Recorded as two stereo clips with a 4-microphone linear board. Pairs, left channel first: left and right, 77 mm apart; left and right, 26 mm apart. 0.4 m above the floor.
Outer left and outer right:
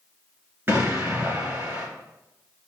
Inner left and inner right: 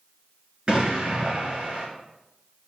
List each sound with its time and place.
0.7 s an explosion: 30° right (ahead or behind), 3.5 m